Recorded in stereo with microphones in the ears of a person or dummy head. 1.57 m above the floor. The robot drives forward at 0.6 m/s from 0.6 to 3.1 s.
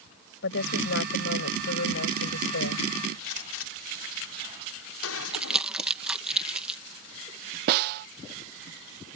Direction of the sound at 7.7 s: 60° right (ahead or behind).